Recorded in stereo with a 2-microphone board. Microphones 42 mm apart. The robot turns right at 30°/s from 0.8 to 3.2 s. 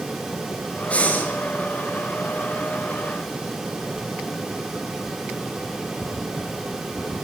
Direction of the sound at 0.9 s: 30° left (ahead or behind).